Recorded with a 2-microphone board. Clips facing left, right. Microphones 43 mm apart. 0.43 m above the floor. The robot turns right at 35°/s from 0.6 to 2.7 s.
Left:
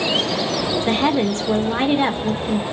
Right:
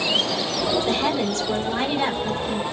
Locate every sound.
0.9 s a woman speaking: 75° left, 1.1 m; by 2.6 s 140° left, 1.1 m